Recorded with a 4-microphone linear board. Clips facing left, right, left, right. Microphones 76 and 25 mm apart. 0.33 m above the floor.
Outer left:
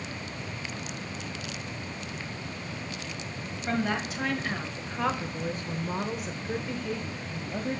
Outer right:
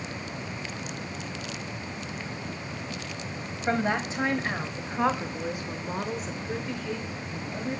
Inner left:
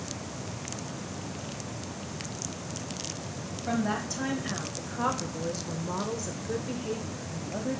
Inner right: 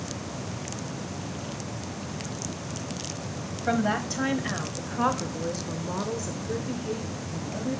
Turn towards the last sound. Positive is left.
turn(degrees=25)  # may be behind; listen again after turning